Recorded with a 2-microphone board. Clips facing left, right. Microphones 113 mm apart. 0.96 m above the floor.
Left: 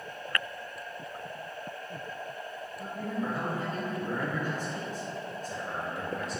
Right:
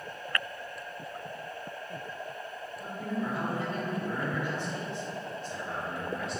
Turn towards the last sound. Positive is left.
turn(degrees=40)  # may be behind; listen again after turning